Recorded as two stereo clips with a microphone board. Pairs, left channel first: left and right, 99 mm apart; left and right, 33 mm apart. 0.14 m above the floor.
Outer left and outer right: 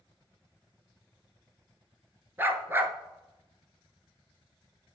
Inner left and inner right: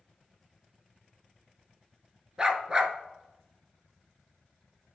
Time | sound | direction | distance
2.4 | a dog barking | 25° right (ahead or behind) | 0.8 m